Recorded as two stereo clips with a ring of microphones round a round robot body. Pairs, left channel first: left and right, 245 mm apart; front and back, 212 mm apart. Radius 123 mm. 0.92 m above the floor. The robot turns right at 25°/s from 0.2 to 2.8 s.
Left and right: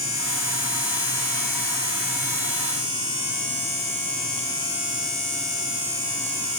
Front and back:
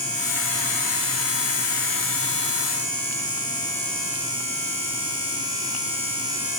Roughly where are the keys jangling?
I don't hear keys jangling.